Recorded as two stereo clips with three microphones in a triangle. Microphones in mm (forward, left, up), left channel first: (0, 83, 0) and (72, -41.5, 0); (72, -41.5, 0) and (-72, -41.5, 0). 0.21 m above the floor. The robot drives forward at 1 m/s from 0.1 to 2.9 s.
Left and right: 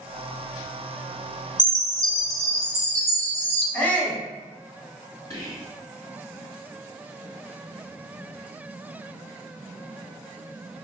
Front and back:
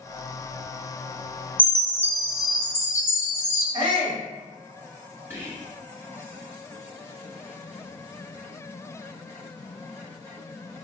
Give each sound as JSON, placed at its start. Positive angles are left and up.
{"t": 1.6, "sound": "a chime", "azimuth_deg": 70, "distance_m": 0.8}
{"t": 3.7, "sound": "a shout", "azimuth_deg": -170, "distance_m": 1.3}
{"t": 5.3, "sound": "whispering", "azimuth_deg": 130, "distance_m": 1.8}